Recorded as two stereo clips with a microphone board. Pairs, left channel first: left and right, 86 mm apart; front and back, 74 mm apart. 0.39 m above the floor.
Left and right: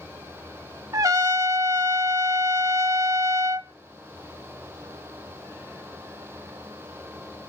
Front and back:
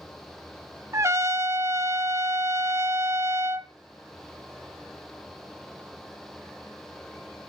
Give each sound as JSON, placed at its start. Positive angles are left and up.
{"t": 0.9, "sound": "a trumpet", "azimuth_deg": -135, "distance_m": 0.6}